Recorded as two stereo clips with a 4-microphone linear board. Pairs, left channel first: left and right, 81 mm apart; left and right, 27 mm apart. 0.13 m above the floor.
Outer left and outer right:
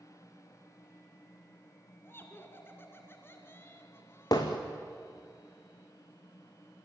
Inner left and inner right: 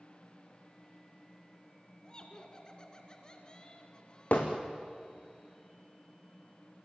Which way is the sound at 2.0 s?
30° left (ahead or behind).